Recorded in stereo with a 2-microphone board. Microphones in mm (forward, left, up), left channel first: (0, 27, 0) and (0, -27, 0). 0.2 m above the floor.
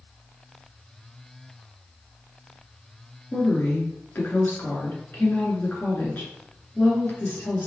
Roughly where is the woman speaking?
Left.